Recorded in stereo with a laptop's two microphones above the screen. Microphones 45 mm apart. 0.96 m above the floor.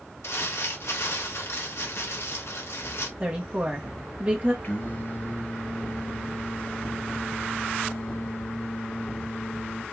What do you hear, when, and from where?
0.2 s crumpling: 75° left (ahead or behind), 1.3 m
3.2 s a woman speaking: 30° right (ahead or behind), 0.9 m
4.6 s singing: 40° left (ahead or behind), 2 m